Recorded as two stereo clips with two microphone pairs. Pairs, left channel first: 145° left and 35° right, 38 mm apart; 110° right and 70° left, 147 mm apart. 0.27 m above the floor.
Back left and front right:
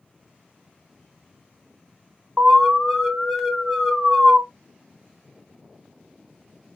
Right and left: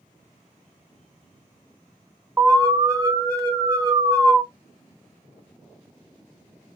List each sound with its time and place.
2.4 s an alarm: 50° left, 1.5 m